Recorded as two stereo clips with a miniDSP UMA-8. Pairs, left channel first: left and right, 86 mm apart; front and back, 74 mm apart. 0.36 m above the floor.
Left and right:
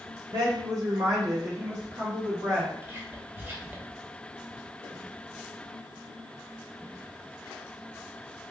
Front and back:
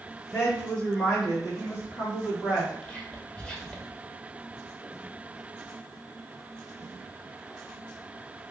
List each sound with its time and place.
0.3 s a woman speaking: 75° right, 1.8 m; by 2.7 s 140° right, 1.8 m
2.8 s whispering: 60° right, 0.8 m